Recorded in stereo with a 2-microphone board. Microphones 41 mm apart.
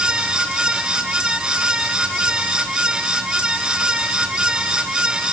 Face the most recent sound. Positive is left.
No sound to turn to.